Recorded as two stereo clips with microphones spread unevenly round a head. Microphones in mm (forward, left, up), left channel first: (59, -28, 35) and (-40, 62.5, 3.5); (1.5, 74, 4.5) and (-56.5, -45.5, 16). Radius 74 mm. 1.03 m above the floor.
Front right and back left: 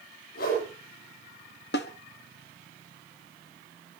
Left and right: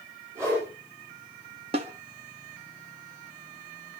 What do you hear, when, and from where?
0.3 s a whoosh: 40° right, 8 m
1.7 s a snare drum: 60° right, 1.1 m